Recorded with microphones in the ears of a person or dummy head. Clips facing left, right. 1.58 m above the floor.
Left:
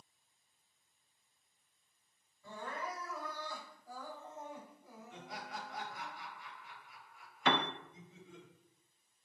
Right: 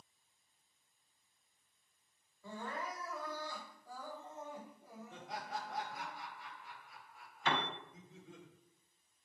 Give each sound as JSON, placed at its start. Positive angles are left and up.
{"t": 2.4, "sound": "crying", "side_deg": -50, "distance_m": 3.5}
{"t": 5.1, "sound": "laughter", "side_deg": -40, "distance_m": 3.5}
{"t": 7.5, "sound": "a piano", "side_deg": 55, "distance_m": 0.7}